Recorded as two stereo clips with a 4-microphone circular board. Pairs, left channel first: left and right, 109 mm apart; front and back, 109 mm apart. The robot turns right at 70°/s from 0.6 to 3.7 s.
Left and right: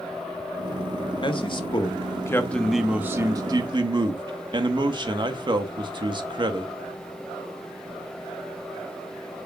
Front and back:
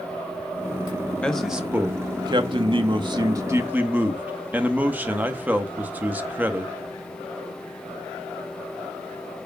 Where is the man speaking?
75° left, 0.9 m; by 6.7 s 110° right, 0.9 m.